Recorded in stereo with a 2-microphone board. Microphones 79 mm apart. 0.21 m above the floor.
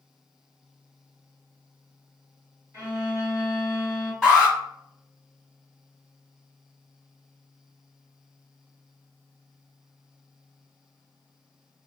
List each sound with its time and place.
2.7 s a violin: 30° right (ahead or behind), 1.7 m
4.2 s an alarm: 5° left (ahead or behind), 1.5 m